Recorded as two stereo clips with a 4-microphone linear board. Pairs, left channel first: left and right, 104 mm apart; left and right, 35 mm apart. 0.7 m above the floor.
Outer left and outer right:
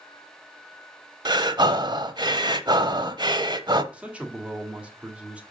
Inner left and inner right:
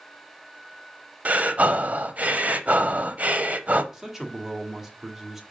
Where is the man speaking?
10° right (ahead or behind), 1.5 m.